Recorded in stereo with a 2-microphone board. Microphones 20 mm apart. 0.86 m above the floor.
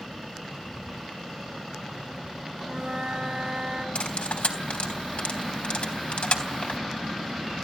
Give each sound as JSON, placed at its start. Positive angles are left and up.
{"t": 2.6, "sound": "a flute", "side_deg": -35, "distance_m": 5.0}
{"t": 4.0, "sound": "cutlery clinking", "side_deg": 80, "distance_m": 3.5}